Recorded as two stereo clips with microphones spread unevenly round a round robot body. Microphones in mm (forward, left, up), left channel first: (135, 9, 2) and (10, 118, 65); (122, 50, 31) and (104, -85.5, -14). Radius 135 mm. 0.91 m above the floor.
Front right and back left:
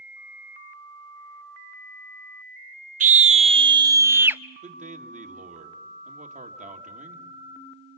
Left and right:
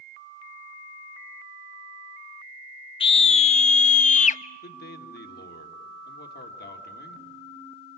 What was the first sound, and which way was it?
A scream, 130° left.